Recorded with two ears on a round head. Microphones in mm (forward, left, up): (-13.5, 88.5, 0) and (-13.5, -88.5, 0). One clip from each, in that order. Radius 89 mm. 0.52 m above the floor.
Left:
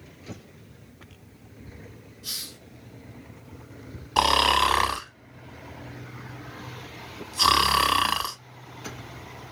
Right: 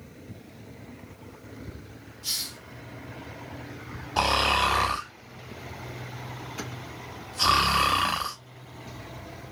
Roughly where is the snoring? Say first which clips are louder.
Left 3 dB; left.